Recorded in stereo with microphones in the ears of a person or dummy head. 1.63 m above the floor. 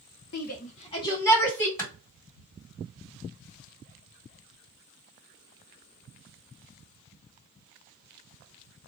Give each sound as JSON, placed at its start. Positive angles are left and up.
{"t": 0.3, "sound": "a shout", "side_deg": 55, "distance_m": 0.8}
{"t": 1.8, "sound": "a clap", "side_deg": 15, "distance_m": 2.0}